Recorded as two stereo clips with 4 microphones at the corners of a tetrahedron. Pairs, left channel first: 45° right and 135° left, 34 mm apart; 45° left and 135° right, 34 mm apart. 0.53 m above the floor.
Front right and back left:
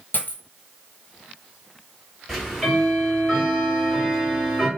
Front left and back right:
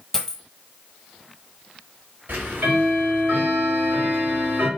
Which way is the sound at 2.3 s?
145° right.